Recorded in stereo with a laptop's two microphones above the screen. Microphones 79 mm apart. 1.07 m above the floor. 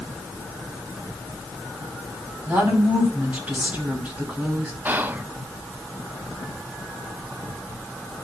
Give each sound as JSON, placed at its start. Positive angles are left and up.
{"t": 2.5, "sound": "a woman speaking", "side_deg": -20, "distance_m": 2.5}
{"t": 4.8, "sound": "whispering", "side_deg": -25, "distance_m": 0.8}